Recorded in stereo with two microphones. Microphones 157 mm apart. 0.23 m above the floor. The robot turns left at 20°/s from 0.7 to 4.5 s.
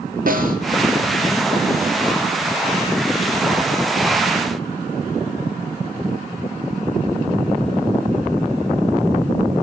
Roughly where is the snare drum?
Right.